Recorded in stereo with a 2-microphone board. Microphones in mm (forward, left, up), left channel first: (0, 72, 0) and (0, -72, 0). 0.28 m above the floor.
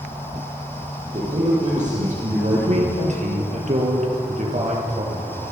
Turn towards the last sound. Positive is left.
turn(degrees=-55)  # may be behind; listen again after turning